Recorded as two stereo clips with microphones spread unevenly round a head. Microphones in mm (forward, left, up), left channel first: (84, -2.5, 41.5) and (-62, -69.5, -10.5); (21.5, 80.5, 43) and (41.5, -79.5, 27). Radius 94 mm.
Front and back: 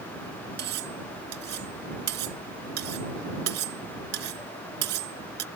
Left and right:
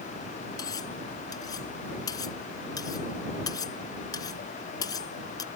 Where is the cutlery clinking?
165° left.